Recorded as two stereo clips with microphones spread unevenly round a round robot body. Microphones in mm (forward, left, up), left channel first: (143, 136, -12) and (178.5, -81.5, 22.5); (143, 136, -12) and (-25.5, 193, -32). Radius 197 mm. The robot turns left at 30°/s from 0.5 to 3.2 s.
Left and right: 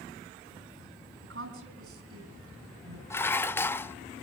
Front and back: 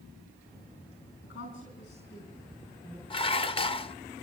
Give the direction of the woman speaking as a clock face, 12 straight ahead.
2 o'clock.